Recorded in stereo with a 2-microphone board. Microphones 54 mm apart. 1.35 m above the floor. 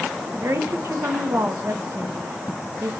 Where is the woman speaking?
55° right (ahead or behind), 0.6 m.